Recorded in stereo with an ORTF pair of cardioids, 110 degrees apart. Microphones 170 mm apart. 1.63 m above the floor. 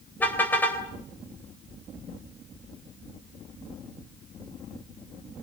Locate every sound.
0.2 s a car horn: 10° left, 3.5 m